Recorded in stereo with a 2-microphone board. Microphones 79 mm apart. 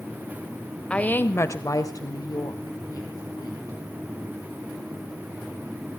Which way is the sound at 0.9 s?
15° left (ahead or behind).